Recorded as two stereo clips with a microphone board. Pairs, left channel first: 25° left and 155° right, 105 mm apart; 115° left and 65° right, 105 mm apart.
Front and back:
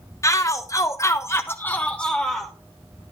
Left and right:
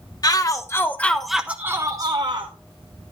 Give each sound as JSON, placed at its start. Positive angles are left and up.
{"t": 0.2, "sound": "a shout", "azimuth_deg": 75, "distance_m": 1.0}